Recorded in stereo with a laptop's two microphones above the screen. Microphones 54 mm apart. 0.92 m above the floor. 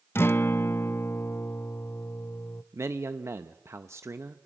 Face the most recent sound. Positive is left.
turn(degrees=-55)  # may be behind; listen again after turning